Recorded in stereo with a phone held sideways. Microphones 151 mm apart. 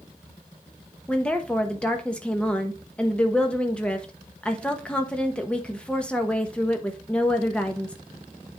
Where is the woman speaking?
10° left (ahead or behind), 0.9 m.